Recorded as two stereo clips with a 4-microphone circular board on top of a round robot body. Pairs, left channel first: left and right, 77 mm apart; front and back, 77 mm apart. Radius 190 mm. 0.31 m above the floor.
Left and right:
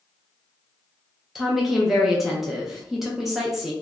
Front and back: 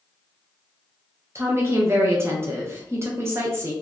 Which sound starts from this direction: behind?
A woman speaking, at 1.4 s.